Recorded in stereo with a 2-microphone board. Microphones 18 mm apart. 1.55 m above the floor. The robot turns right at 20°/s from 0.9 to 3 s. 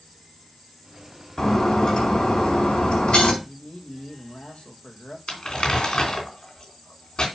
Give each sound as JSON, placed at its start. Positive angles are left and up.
{"t": 1.4, "sound": "breaking glass", "azimuth_deg": 40, "distance_m": 4.5}
{"t": 3.4, "sound": "a man speaking", "side_deg": 80, "distance_m": 2.5}
{"t": 5.3, "sound": "crumpling", "side_deg": 50, "distance_m": 3.0}